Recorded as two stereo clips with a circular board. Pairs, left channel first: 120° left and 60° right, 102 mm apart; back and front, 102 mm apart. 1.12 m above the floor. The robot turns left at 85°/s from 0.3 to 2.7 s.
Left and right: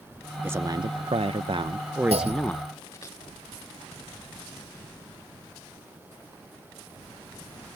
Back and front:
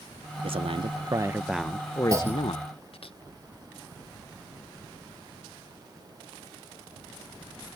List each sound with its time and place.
0.4 s a man speaking: 10° left; by 3.1 s 175° left
2.1 s a clunk: 55° right; by 2.7 s 105° right